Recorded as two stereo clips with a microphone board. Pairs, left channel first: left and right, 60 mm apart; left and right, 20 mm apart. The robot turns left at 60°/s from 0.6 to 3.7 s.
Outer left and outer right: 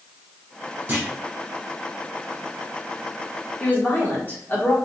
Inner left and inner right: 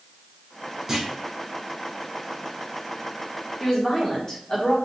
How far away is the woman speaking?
About 1.2 m.